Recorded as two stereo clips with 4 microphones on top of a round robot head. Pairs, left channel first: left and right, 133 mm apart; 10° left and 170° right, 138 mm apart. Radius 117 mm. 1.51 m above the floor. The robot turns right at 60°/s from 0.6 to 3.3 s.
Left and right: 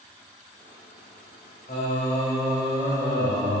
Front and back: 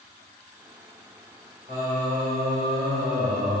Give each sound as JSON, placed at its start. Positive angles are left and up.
{"t": 1.7, "sound": "singing", "azimuth_deg": 140, "distance_m": 2.5}